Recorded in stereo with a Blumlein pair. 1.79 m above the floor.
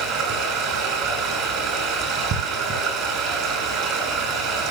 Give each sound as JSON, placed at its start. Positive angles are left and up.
{"t": 0.0, "sound": "running water", "azimuth_deg": -30, "distance_m": 8.5}